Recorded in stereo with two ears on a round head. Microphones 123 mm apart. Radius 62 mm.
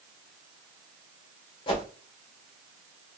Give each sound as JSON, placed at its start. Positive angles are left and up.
{"t": 1.7, "sound": "a whoosh", "side_deg": 40, "distance_m": 1.2}